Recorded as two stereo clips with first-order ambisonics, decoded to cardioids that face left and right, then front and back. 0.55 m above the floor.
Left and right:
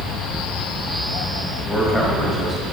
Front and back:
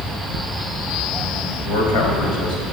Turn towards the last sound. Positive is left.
turn(degrees=5)